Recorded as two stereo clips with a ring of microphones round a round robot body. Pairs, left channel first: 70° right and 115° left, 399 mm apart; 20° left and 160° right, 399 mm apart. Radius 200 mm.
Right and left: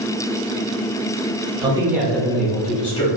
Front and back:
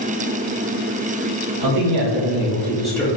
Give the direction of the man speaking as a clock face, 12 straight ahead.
6 o'clock.